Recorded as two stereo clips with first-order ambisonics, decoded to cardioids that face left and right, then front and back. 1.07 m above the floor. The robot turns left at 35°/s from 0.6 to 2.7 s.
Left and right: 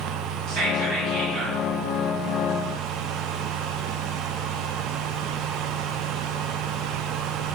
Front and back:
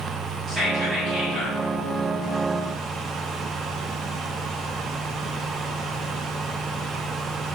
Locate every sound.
0.5 s whispering: 115° right, 1.4 m; by 1.6 s 150° right, 1.4 m